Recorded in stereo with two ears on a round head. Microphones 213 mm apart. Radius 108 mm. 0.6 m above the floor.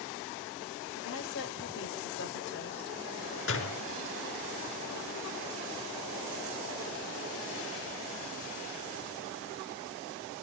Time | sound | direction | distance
1.0 | a woman speaking | 60° left (ahead or behind) | 3 m
3.5 | a door slam | 55° left (ahead or behind) | 4.5 m